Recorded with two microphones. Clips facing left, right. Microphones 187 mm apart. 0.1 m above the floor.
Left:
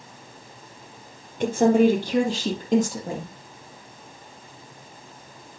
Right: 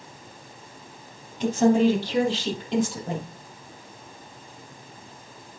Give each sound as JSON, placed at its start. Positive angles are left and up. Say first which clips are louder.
{"t": 1.4, "sound": "a woman speaking", "louder": "left 1 dB", "side_deg": 55, "distance_m": 2.5}